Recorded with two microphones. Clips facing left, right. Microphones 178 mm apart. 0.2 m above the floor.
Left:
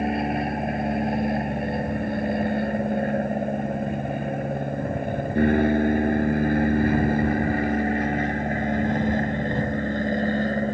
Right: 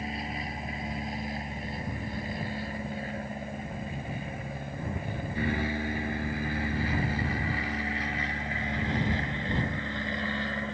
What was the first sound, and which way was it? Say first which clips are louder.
An aircraft: left 12 dB; 65° left (ahead or behind).